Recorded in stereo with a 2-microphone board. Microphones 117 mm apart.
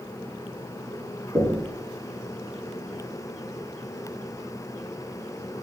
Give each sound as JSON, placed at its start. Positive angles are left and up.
{"t": 1.4, "sound": "knocking", "side_deg": -35, "distance_m": 1.2}